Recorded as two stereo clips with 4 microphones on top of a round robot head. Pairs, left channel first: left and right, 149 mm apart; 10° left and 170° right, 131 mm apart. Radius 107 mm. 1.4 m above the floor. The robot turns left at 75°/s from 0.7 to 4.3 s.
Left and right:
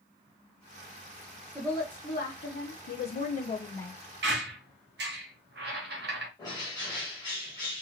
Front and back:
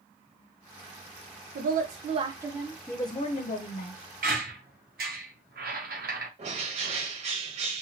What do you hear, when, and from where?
1.6 s a woman speaking: 175° right, 0.5 m; by 3.9 s 5° left, 0.5 m
4.2 s a squeak: 120° right, 0.6 m; by 6.3 s 130° right, 0.6 m
6.4 s a bird: 160° left, 0.8 m